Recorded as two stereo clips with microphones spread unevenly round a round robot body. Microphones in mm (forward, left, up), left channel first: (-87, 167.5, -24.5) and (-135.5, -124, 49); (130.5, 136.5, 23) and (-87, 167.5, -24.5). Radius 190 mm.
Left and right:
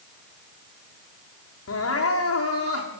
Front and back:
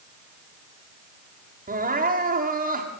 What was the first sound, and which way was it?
Crying, 120° left.